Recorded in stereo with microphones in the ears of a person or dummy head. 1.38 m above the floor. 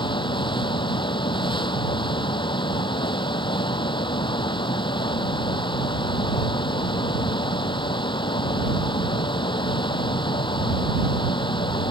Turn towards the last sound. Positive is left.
turn(degrees=20)  # may be behind; listen again after turning